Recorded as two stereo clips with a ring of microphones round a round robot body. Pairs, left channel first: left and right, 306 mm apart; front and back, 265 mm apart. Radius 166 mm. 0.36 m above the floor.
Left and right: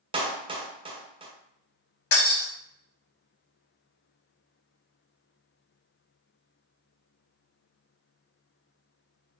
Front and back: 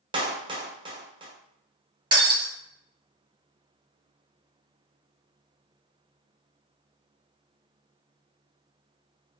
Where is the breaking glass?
105° left, 1.6 m.